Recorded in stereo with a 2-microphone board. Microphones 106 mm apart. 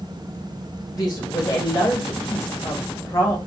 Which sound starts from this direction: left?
A woman speaking, at 0.9 s.